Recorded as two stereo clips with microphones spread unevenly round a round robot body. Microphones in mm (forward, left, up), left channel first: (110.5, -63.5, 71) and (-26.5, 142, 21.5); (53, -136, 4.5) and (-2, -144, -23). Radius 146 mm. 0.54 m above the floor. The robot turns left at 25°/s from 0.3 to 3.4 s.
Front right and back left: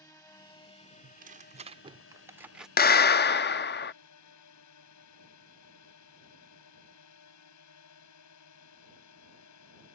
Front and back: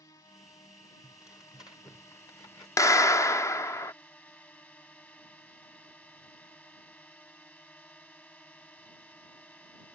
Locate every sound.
0.0 s a drone: 25° left; by 9.9 s 55° right
1.0 s tearing paper: 85° left; by 2.7 s 40° left
2.8 s a clap: 20° right; by 3.9 s 35° right